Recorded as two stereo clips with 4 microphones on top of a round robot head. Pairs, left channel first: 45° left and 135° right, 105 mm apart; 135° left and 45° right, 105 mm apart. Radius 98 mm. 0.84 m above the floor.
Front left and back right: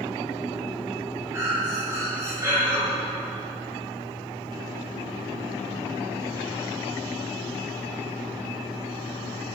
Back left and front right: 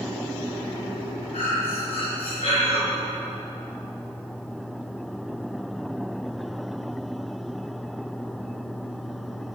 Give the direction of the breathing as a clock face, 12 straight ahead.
7 o'clock.